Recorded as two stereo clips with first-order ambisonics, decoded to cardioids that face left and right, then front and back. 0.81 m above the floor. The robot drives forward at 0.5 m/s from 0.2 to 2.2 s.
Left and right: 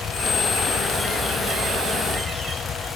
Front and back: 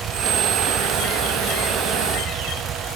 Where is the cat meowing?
No cat meowing in this recording.